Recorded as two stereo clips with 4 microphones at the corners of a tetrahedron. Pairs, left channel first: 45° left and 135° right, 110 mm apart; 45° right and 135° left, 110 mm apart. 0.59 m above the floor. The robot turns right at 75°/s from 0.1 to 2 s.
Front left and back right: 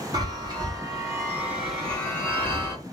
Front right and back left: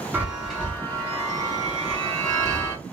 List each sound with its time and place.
0.1 s a chime: 160° right, 1.0 m; by 2.8 s 20° right, 1.0 m